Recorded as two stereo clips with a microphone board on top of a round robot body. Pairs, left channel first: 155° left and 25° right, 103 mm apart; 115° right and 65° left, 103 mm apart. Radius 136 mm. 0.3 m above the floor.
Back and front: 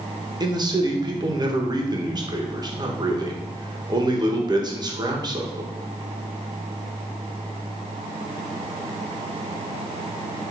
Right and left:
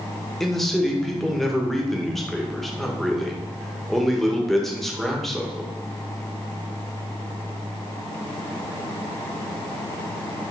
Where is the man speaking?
25° right, 1.2 m.